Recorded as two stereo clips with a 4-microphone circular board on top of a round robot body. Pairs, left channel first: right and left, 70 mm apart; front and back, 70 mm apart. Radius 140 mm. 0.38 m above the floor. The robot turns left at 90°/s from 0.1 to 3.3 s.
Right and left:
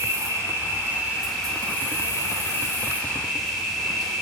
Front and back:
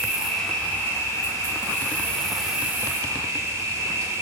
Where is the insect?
110° left, 1.1 m; by 4.2 s straight behind, 1.1 m.